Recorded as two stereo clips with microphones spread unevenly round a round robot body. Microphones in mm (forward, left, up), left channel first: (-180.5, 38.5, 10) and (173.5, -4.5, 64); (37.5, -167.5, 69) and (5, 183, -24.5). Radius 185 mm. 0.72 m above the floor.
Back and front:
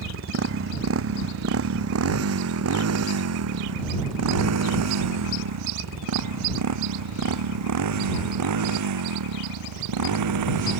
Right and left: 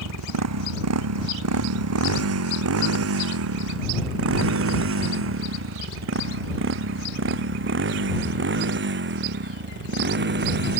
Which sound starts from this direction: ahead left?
A motorcycle, at 0.0 s.